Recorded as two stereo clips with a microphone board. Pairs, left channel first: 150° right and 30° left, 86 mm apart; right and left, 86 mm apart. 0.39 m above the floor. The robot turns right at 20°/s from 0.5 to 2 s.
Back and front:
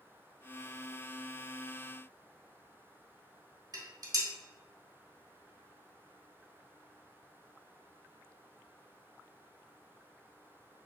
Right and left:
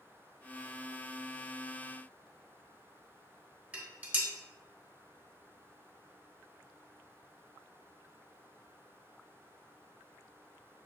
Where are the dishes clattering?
25° left, 1.3 m.